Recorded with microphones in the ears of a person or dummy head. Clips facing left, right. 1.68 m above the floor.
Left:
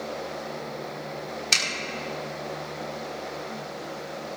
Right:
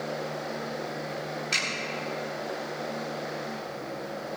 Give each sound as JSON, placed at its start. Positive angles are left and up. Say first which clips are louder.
{"t": 1.5, "sound": "a zipper", "louder": "left 1 dB", "side_deg": 70, "distance_m": 4.5}